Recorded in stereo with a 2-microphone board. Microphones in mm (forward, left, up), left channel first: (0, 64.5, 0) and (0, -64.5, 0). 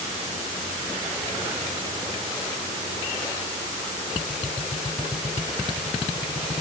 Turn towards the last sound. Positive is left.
No sound to turn to.